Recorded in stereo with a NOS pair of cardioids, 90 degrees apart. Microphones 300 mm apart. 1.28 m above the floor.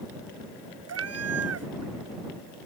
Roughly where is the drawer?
I don't hear a drawer.